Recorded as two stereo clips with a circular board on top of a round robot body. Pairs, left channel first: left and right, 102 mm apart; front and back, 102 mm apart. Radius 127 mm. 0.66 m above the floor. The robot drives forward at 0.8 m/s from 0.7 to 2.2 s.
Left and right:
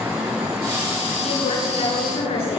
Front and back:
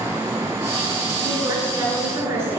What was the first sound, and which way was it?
A woman speaking, 110° left.